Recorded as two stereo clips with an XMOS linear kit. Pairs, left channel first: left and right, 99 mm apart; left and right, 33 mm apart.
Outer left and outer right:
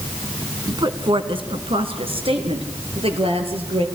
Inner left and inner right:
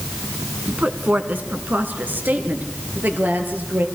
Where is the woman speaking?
45° right (ahead or behind), 2.0 m; by 3.9 s 70° right (ahead or behind), 5 m.